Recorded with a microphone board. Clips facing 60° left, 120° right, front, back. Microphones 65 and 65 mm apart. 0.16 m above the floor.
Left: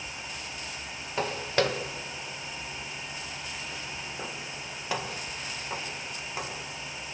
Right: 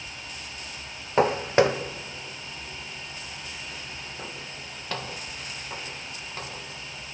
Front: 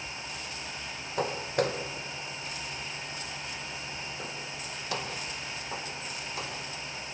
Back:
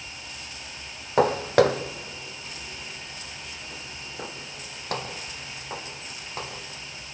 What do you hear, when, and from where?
1.2 s footsteps: 170° right, 0.7 m; by 6.6 s 140° left, 3.5 m